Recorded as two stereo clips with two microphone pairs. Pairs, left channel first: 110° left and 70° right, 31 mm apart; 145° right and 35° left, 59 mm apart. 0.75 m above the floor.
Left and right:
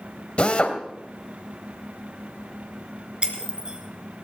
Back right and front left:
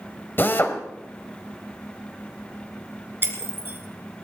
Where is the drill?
165° left, 1.6 m.